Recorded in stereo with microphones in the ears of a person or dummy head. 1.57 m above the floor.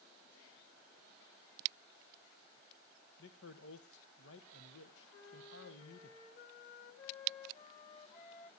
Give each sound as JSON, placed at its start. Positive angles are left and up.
{"t": 3.2, "sound": "a man speaking", "side_deg": 75, "distance_m": 1.5}
{"t": 5.1, "sound": "a flute", "side_deg": 45, "distance_m": 3.0}